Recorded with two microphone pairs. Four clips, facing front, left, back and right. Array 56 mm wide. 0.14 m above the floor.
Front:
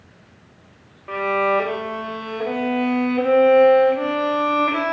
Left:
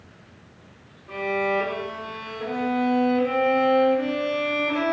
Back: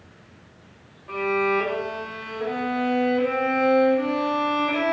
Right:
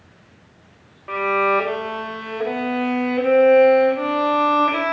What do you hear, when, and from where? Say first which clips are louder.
1.1 s a violin: right 6 dB, front 3 dB; 60° right, 2.5 m